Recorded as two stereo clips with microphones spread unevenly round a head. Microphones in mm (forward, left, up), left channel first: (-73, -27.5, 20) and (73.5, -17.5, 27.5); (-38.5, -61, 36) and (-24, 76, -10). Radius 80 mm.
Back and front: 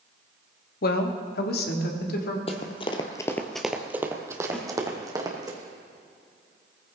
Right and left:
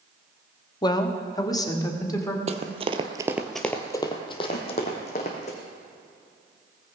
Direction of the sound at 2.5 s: 135° left.